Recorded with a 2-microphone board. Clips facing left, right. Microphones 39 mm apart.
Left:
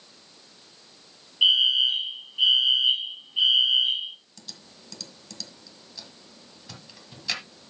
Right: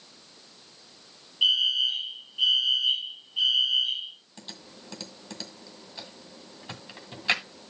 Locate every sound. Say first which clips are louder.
1.4 s a fire alarm: left 3 dB; 20° left (ahead or behind), 2.5 m
4.4 s typing on a keyboard: right 2 dB; 35° right (ahead or behind), 1.8 m